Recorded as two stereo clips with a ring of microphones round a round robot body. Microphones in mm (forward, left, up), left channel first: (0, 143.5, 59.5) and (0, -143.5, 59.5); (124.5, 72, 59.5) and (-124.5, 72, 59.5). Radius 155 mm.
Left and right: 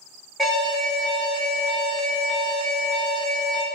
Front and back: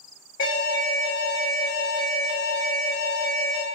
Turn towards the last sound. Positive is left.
turn(degrees=0)